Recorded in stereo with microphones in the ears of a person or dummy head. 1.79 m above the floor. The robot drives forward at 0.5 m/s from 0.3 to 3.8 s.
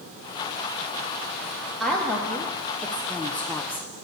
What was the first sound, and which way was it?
A woman speaking, 5° left (ahead or behind).